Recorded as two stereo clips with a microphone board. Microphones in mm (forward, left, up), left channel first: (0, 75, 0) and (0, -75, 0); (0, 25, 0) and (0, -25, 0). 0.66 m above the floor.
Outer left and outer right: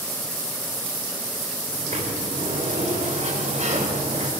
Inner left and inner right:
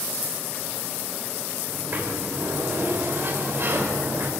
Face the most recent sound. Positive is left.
turn(degrees=-50)  # may be behind; listen again after turning